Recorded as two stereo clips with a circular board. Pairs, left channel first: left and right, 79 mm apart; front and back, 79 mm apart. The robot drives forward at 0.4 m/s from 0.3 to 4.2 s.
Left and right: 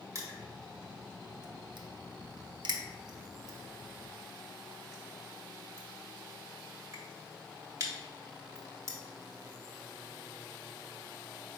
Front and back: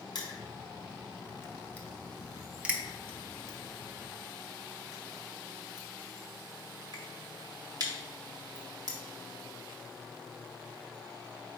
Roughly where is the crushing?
Ahead right.